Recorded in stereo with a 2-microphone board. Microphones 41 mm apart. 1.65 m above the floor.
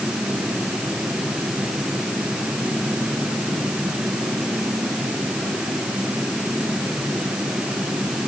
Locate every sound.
Only background noise.